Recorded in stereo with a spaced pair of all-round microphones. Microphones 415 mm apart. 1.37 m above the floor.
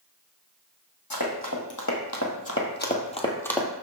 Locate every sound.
1.1 s running footsteps: 55° left (ahead or behind), 2.5 m; by 3.7 s centre (ahead or behind), 1.5 m